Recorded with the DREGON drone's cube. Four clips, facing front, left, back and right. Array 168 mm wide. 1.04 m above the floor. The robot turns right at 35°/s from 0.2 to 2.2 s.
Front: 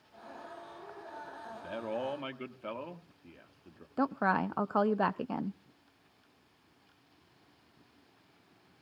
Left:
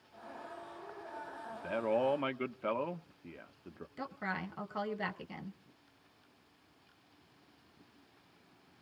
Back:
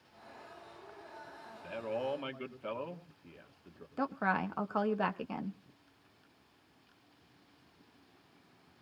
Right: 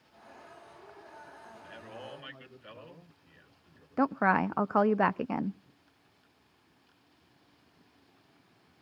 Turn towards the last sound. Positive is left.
turn(degrees=-70)